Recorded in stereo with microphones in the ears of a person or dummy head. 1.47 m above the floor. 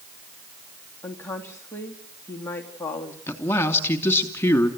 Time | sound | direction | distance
1.0 | a woman speaking | 10° left (ahead or behind) | 2.5 m
3.3 | a man speaking | 15° left (ahead or behind) | 3 m